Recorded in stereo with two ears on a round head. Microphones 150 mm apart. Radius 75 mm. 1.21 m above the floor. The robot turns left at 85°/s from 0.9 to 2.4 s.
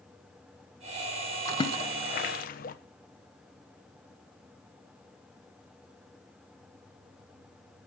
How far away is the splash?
About 1.0 m.